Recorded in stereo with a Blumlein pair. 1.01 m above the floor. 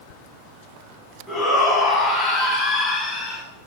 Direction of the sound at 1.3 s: 10° left.